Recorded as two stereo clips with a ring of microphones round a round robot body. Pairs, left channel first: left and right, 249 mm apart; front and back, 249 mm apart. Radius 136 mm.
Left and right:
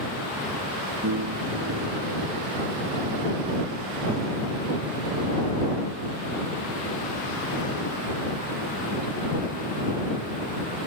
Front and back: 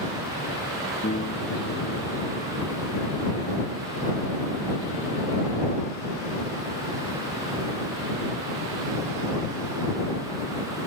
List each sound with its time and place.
1.0 s a piano: 60° right